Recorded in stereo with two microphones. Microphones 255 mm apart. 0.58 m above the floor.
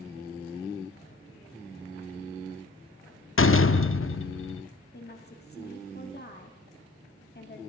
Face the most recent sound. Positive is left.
turn(degrees=40)  # may be behind; listen again after turning